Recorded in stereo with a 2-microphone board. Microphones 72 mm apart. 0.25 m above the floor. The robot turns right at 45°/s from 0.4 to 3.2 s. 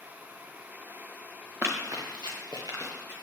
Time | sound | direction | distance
1.6 | running footsteps | 30° right (ahead or behind) | 1.3 m